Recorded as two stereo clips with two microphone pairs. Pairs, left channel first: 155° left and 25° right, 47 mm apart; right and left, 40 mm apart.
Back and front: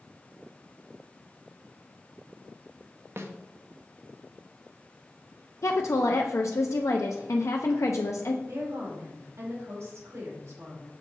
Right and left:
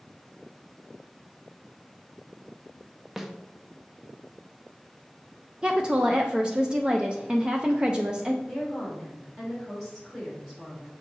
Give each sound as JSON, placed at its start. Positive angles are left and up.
{"t": 3.2, "sound": "a snare drum", "azimuth_deg": 5, "distance_m": 0.7}
{"t": 5.6, "sound": "a woman speaking", "azimuth_deg": 155, "distance_m": 0.5}
{"t": 8.5, "sound": "a woman speaking", "azimuth_deg": 0, "distance_m": 3.0}